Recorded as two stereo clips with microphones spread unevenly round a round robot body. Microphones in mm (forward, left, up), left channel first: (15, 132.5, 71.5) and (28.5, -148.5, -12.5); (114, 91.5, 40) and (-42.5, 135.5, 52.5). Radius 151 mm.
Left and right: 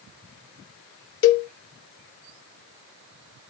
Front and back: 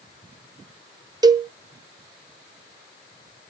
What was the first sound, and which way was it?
A cowbell, 120° left.